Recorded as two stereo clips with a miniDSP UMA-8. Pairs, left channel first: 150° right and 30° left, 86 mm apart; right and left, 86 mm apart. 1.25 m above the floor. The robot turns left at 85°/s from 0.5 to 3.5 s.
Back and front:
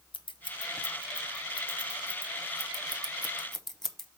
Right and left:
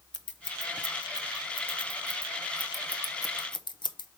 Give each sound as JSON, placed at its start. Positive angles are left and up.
{"t": 0.1, "sound": "scissors", "azimuth_deg": -170, "distance_m": 0.7}